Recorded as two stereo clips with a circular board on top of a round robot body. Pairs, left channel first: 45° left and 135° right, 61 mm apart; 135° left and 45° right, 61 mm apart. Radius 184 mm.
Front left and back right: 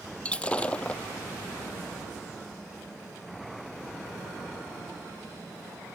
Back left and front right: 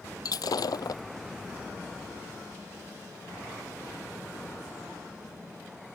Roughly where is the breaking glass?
Behind left.